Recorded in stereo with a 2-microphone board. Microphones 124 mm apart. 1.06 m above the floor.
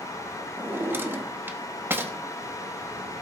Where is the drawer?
15° right (ahead or behind), 0.8 m.